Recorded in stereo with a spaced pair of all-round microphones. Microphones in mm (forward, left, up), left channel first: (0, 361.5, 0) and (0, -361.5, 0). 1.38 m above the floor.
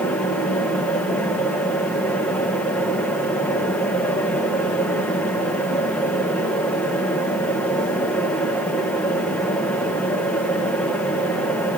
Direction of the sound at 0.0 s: Centre (ahead or behind).